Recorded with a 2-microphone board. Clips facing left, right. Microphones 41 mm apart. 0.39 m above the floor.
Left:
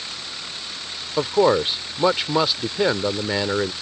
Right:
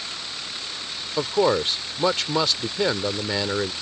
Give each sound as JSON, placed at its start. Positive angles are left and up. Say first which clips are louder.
{"t": 1.2, "sound": "a man speaking", "louder": "left 3 dB", "side_deg": 15}